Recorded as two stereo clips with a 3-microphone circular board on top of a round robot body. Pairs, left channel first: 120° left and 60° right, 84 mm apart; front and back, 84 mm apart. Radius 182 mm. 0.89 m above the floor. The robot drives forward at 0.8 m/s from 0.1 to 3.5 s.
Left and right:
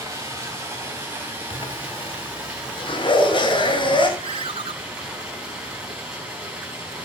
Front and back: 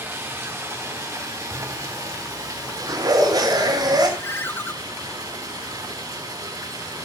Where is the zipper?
125° left, 3.5 m; by 4.1 s 140° left, 4.5 m.